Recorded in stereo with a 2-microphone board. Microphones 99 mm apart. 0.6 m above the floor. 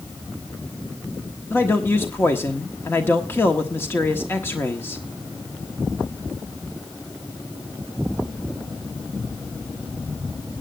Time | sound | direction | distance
1.5 | a man speaking | 25° left (ahead or behind) | 1.1 m